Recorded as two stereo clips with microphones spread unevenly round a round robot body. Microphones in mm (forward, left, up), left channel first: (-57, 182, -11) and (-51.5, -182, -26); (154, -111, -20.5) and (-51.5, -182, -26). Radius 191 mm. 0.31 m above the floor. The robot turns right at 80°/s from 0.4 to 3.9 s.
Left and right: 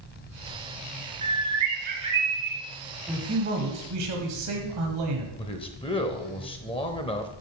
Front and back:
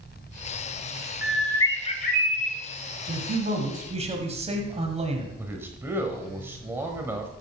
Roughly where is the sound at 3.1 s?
Behind.